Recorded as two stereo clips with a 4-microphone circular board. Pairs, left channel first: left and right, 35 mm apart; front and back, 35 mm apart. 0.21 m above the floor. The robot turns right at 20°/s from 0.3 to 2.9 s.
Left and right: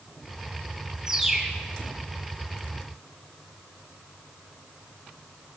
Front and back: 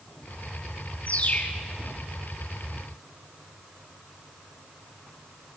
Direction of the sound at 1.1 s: 25° right.